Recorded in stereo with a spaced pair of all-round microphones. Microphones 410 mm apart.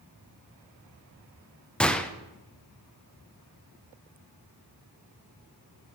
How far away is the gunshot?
About 0.5 m.